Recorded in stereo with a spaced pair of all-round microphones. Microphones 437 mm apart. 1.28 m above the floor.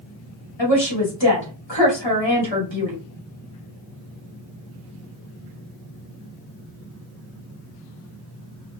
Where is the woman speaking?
85° left, 2.0 m.